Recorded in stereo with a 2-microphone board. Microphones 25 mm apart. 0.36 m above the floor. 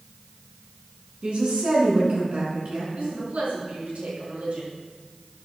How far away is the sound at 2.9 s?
About 5 m.